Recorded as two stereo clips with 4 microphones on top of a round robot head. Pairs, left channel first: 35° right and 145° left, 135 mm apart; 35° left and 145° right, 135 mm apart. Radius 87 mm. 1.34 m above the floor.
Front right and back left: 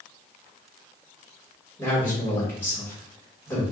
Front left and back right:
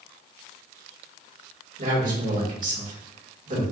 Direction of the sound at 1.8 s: 110° right.